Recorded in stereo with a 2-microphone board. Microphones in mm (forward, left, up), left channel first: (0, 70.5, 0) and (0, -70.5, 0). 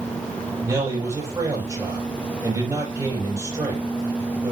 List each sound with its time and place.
0.6 s a man speaking: 25° right (ahead or behind), 6 m